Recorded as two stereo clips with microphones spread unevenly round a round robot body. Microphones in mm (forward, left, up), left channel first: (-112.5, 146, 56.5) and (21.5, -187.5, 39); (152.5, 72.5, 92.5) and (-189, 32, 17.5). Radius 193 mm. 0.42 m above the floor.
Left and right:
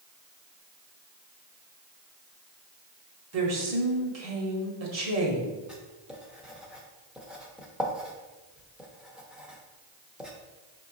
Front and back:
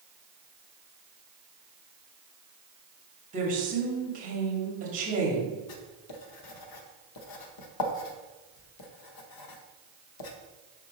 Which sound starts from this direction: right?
A woman speaking, at 3.3 s.